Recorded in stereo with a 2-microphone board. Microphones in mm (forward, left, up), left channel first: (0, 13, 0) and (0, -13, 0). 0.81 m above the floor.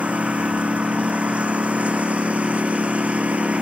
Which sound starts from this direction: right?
A lawn mower, at 0.0 s.